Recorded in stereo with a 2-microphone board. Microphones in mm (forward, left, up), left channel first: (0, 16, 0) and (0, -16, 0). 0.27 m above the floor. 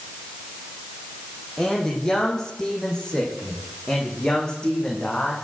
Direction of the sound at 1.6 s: 15° left (ahead or behind).